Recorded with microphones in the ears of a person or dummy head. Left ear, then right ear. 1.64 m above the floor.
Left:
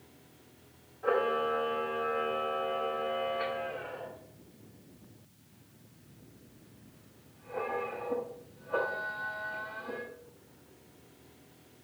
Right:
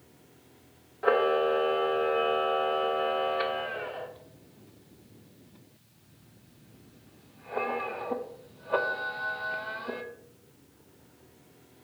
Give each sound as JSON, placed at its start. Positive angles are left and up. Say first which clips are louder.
{"t": 1.0, "sound": "a camera shutter", "louder": "right 5 dB", "side_deg": -75, "distance_m": 0.5}